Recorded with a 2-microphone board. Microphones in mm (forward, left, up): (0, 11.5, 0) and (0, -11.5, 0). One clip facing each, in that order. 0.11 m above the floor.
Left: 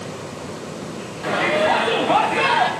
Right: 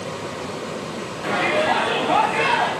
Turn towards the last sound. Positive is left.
turn(degrees=25)  # may be behind; listen again after turning